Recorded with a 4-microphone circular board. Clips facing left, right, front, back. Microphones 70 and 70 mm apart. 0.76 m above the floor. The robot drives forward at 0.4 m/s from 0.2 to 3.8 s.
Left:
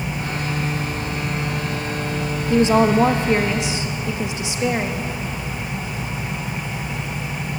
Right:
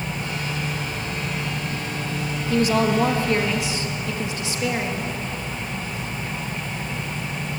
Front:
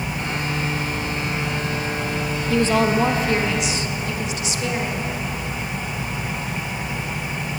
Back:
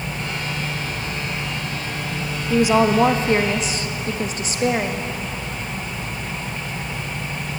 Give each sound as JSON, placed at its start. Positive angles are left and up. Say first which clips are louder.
{"t": 2.5, "sound": "a woman speaking", "louder": "left 4 dB, back 3 dB", "azimuth_deg": 110, "distance_m": 0.7}